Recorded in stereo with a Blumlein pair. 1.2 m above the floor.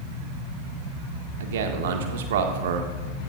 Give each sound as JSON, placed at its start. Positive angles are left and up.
{"t": 1.4, "sound": "a man speaking", "azimuth_deg": -55, "distance_m": 1.6}